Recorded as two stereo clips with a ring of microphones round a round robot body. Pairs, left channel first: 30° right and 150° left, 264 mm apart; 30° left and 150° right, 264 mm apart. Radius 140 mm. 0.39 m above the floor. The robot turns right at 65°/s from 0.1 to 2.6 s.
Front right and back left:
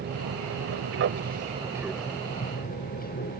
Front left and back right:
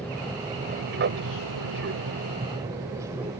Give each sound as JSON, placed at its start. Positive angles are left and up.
{"t": 0.0, "sound": "an aircraft", "azimuth_deg": 115}